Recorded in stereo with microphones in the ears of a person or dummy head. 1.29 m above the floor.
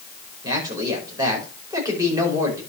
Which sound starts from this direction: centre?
A man speaking, at 0.4 s.